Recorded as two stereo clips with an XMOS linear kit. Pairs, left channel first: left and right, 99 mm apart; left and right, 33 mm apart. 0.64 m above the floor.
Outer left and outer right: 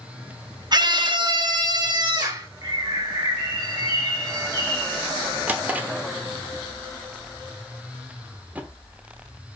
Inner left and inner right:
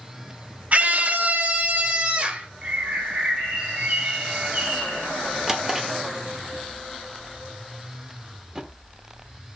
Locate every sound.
0.7 s a scream: 45° right (ahead or behind), 0.8 m; by 2.5 s 40° right (ahead or behind), 1.8 m
2.6 s a bird: 45° right (ahead or behind), 1.8 m
5.5 s a drawer: 15° right (ahead or behind), 0.9 m